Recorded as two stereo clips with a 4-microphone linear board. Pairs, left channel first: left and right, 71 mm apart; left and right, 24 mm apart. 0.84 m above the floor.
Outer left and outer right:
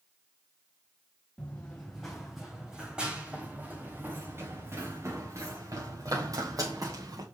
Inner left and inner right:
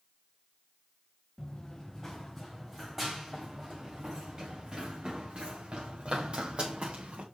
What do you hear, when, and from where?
1.4 s running footsteps: 15° left (ahead or behind), 2.5 m; by 7.2 s 55° right (ahead or behind), 5 m